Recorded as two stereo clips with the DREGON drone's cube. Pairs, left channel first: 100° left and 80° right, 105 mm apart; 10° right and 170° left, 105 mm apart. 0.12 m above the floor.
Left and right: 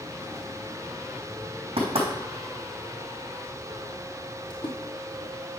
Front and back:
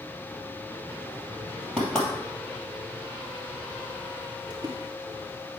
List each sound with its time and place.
1.8 s knocking: 95° right, 3 m
4.5 s a splash: 125° left, 1.6 m